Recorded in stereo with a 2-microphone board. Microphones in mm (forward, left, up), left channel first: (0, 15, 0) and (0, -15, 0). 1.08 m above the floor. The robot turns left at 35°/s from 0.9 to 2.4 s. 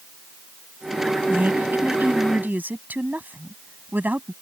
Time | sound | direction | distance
1.3 | a woman speaking | 70° right | ?